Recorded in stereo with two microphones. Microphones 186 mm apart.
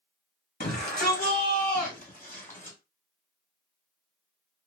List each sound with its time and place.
0.6 s a shout: 60° left (ahead or behind), 1.9 m; by 2.8 s 45° left (ahead or behind), 1.8 m